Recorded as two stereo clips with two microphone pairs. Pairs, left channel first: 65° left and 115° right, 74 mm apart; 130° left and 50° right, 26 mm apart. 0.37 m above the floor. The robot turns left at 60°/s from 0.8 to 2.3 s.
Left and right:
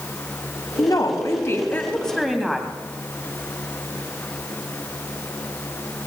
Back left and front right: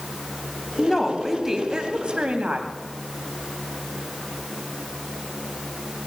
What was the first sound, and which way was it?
A woman speaking, 60° left.